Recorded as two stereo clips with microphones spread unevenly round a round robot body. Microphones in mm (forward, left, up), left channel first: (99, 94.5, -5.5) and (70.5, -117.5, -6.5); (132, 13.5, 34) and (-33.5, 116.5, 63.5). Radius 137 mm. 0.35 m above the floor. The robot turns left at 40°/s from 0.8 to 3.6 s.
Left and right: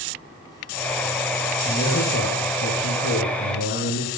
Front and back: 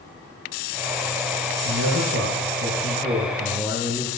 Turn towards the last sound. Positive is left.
turn(degrees=70)